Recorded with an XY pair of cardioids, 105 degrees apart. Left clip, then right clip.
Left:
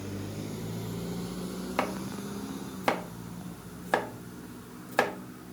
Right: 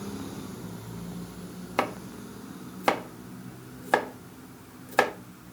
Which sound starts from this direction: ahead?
Chopping, at 1.8 s.